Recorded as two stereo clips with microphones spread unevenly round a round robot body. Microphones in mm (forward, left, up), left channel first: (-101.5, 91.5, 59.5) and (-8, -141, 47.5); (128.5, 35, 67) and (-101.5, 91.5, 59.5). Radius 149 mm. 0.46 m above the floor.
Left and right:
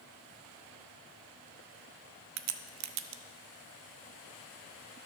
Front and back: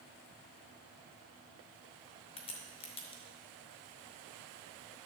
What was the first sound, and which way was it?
A crack, 85° right.